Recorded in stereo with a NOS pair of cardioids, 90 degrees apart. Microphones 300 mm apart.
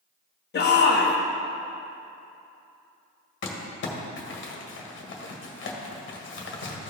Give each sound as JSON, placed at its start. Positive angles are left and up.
{"t": 0.5, "sound": "a shout", "azimuth_deg": 35, "distance_m": 1.0}
{"t": 3.4, "sound": "crumpling", "azimuth_deg": 40, "distance_m": 1.6}